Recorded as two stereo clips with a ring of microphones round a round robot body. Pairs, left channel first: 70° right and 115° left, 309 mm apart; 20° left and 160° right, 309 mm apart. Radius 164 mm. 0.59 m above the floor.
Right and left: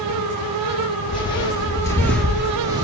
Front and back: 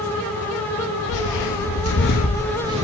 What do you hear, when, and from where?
1.1 s footsteps: 5° left, 1.1 m; by 2.8 s 170° left, 0.6 m